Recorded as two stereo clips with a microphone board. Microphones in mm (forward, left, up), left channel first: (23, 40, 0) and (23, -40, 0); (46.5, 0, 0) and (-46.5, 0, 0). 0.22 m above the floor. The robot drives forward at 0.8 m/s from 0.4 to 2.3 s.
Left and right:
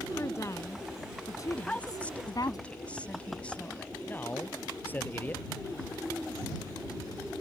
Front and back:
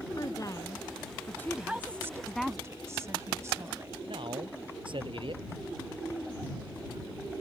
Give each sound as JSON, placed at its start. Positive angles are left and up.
{"t": 0.2, "sound": "a woman speaking", "azimuth_deg": 45}
{"t": 1.6, "sound": "a woman speaking", "azimuth_deg": 120}
{"t": 4.1, "sound": "a man speaking", "azimuth_deg": 160}